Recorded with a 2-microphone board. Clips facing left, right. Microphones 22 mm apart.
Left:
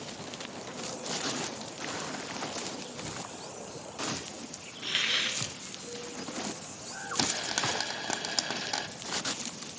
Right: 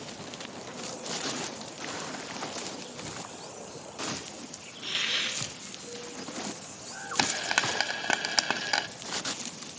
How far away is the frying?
About 1.1 m.